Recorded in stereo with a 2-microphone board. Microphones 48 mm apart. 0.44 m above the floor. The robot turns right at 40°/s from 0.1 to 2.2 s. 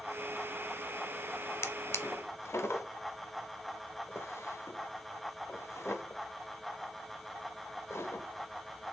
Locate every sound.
1.6 s a drawer: 65° left (ahead or behind), 0.7 m; by 8.9 s 70° left (ahead or behind), 0.7 m